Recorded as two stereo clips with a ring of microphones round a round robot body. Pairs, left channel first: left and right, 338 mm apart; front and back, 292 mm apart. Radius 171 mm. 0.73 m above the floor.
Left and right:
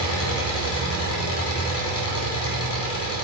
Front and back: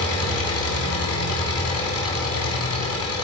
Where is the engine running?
40° left, 3.5 m.